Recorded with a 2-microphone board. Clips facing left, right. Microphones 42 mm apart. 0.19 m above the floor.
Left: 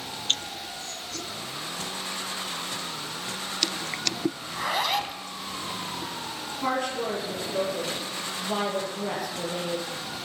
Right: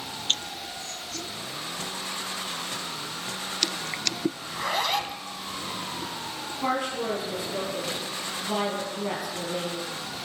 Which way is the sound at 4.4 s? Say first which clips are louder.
Even; 5° left (ahead or behind).